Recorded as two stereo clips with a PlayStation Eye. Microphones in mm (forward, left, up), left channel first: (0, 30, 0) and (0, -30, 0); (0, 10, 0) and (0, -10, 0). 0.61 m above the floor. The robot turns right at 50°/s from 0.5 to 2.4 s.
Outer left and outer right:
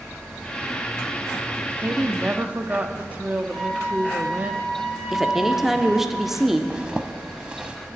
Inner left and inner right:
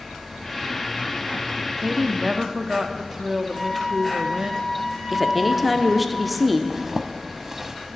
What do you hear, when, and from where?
1.8 s a woman speaking: 30° right (ahead or behind), 0.8 m; by 4.5 s 25° right (ahead or behind), 0.8 m
3.5 s a flute: 10° left (ahead or behind), 3 m
5.1 s a woman speaking: 5° right (ahead or behind), 1.0 m
6.7 s a zipper: 15° right (ahead or behind), 0.9 m